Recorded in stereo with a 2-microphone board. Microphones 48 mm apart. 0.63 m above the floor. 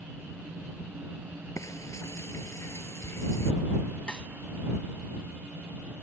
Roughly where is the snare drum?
Centre.